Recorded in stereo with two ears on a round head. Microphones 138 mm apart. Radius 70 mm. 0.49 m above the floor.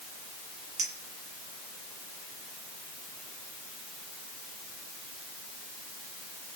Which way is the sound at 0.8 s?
50° right (ahead or behind).